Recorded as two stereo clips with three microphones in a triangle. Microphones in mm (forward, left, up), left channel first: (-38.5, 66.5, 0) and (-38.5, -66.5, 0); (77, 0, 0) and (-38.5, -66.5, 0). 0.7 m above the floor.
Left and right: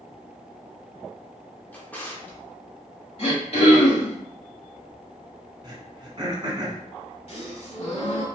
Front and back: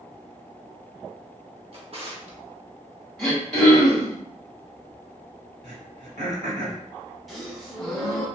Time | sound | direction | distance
1.7 | a drawer | 170° left | 0.8 m
3.2 | throat clearing | 115° left | 2.0 m
5.6 | throat clearing | 140° right | 1.1 m
7.3 | a gasp | 120° left | 1.0 m